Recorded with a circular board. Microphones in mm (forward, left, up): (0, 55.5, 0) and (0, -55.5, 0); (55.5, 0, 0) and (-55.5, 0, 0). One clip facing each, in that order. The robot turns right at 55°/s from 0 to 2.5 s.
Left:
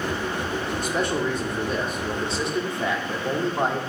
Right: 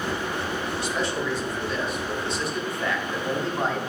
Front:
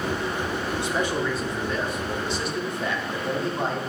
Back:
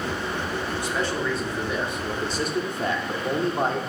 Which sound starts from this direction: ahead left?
A man speaking, at 0.8 s.